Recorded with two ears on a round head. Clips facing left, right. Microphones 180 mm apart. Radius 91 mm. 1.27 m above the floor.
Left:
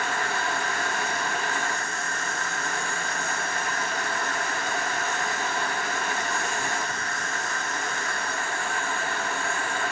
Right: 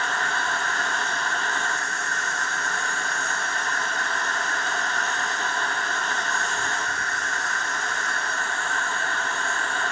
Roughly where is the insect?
Centre.